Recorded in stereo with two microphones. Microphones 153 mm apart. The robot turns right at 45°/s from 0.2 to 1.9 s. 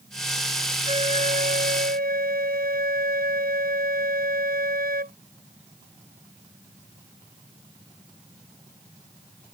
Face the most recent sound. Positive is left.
turn(degrees=-95)